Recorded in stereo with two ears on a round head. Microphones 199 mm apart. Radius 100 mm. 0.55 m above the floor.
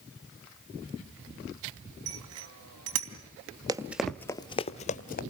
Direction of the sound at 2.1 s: 75° right (ahead or behind).